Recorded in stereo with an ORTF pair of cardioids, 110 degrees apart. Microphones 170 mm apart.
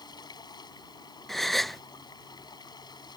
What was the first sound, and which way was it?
Running water, 25° left.